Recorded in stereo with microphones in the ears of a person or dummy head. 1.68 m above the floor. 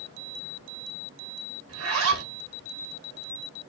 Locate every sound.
1.7 s a zipper: 75° right (ahead or behind), 1.6 m